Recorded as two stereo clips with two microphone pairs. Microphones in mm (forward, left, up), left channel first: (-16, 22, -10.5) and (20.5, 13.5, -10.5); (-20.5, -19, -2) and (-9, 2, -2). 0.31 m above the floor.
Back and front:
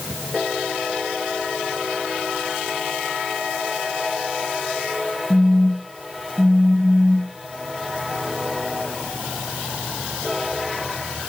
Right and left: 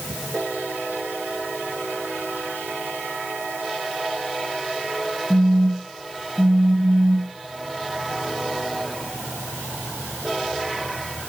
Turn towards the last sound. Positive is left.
turn(degrees=0)